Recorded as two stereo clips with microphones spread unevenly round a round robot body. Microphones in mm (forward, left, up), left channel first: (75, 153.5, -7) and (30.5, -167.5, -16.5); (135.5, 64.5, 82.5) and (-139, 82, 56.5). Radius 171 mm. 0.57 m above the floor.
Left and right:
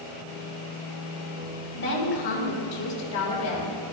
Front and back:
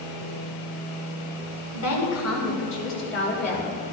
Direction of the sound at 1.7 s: 25° left.